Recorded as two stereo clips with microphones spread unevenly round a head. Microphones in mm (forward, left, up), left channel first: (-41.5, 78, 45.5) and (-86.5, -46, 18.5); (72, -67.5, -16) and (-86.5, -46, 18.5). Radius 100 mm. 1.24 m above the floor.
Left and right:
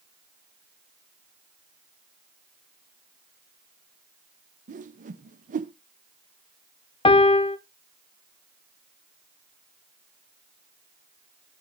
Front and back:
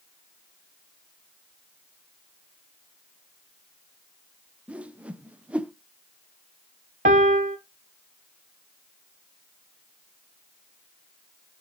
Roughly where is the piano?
Behind left.